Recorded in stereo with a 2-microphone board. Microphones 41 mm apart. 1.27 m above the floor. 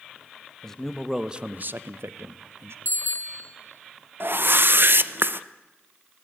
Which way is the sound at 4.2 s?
60° right (ahead or behind).